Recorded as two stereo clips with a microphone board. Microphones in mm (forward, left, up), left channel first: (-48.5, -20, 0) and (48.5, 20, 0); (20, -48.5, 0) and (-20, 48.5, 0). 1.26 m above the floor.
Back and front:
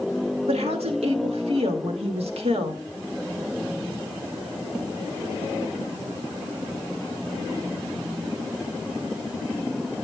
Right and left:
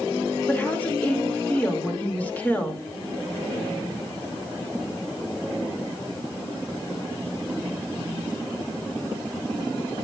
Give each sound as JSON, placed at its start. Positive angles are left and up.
{"t": 0.5, "sound": "a woman speaking", "azimuth_deg": 5, "distance_m": 2.0}